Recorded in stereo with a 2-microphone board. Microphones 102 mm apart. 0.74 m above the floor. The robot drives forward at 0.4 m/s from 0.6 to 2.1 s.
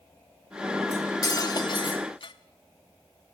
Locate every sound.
0.9 s cutlery clinking: 30° left (ahead or behind), 0.9 m; by 2.3 s 55° left (ahead or behind), 0.6 m